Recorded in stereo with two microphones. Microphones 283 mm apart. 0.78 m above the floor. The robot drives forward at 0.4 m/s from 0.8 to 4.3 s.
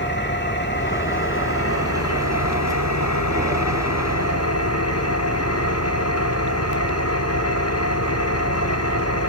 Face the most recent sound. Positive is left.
turn(degrees=60)  # may be behind; listen again after turning